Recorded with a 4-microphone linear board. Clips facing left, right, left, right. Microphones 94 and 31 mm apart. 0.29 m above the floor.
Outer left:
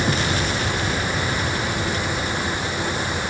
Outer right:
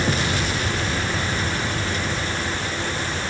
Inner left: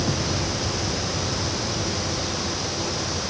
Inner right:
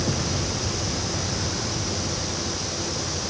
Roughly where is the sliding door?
No sliding door in this recording.